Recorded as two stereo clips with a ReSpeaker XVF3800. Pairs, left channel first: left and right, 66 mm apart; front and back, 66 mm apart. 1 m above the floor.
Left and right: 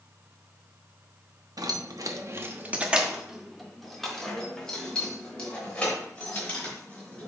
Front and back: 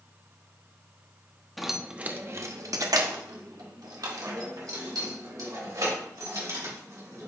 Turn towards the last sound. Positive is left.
turn(degrees=160)